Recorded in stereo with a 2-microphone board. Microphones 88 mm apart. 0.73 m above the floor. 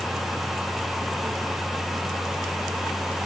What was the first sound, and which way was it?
Only background noise.